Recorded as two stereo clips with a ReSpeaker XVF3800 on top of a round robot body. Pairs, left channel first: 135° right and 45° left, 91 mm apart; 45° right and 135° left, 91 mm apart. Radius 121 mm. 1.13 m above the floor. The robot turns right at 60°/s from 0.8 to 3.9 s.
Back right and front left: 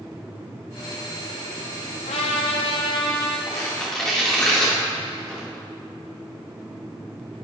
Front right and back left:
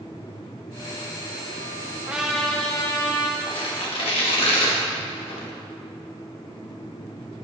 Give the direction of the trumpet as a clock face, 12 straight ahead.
5 o'clock.